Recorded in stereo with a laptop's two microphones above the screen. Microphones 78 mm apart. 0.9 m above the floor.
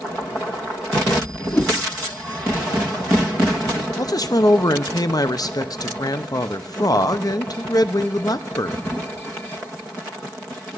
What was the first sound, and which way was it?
A whoosh, 20° left (ahead or behind).